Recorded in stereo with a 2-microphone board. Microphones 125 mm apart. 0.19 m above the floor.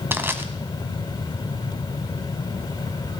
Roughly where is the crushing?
Centre.